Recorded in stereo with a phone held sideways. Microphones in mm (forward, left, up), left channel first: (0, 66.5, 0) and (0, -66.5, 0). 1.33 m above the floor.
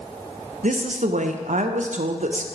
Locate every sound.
0.6 s a woman speaking: 65° right (ahead or behind), 0.5 m